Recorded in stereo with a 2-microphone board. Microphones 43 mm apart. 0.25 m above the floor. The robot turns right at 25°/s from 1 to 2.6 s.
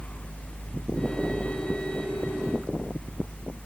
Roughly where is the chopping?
I don't hear chopping.